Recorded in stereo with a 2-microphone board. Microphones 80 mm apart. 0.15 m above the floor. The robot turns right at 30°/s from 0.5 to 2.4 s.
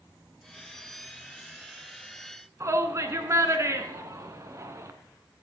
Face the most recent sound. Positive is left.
turn(degrees=-35)  # may be behind; listen again after turning